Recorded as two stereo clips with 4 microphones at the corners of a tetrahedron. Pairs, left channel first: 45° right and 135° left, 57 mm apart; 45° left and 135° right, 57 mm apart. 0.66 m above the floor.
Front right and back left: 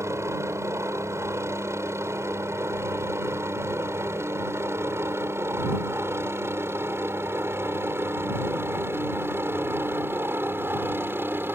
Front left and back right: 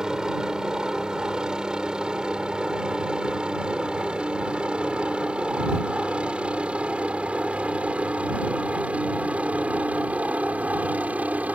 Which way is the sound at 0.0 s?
150° left.